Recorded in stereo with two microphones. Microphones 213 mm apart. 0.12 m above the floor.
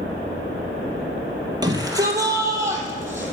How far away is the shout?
About 3.5 m.